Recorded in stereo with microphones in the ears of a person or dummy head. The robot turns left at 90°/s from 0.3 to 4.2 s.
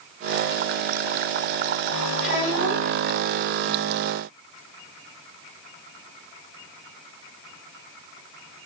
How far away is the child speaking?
About 1.4 m.